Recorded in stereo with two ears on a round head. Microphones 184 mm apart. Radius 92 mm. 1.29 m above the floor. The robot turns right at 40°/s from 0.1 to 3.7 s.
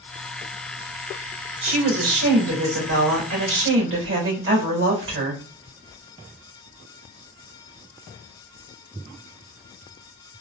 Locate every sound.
1.6 s a woman speaking: 145° right, 2.5 m; by 5.4 s 65° right, 2.5 m